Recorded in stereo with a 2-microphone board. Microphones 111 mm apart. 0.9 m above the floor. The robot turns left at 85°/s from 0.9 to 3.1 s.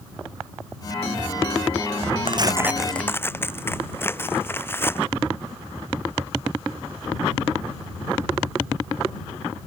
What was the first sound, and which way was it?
Tearing paper, 130° right.